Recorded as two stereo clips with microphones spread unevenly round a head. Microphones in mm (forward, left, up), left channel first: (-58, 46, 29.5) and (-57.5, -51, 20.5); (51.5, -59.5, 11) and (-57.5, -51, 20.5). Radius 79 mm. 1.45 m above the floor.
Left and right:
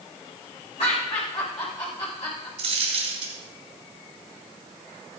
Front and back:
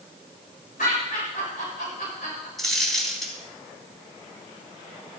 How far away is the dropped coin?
About 3.5 m.